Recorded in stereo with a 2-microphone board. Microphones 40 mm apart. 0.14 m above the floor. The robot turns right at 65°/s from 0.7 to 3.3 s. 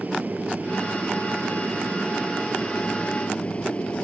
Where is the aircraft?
130° right; by 4.0 s 40° left.